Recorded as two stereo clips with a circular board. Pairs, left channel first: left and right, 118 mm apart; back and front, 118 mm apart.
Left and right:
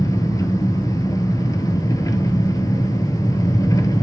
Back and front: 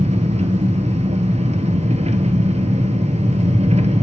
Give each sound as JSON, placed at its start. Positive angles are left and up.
{"t": 0.0, "sound": "an engine running", "azimuth_deg": 25, "distance_m": 0.8}